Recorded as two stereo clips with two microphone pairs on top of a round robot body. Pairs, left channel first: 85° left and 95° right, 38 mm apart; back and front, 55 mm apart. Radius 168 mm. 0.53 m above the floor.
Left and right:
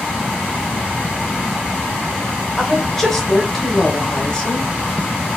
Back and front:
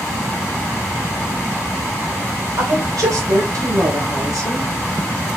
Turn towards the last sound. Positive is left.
turn(degrees=20)